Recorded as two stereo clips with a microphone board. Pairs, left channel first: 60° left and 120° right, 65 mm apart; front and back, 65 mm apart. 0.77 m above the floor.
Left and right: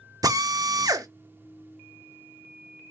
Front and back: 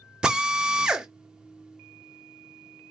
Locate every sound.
0.2 s a drill: 100° right, 0.9 m